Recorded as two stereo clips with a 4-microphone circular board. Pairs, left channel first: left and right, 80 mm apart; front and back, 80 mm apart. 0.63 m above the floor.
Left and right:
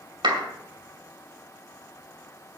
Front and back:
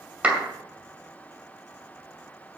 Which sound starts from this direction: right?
A clap, at 0.2 s.